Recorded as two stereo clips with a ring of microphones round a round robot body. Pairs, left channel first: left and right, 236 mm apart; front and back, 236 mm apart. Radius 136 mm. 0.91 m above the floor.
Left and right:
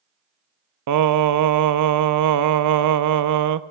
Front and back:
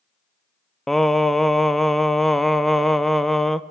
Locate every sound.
0.9 s singing: 90° right, 0.6 m